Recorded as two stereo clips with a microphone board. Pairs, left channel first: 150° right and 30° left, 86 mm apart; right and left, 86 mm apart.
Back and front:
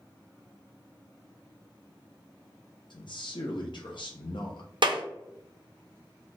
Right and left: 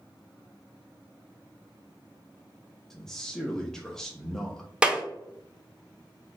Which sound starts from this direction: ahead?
A clap, at 4.8 s.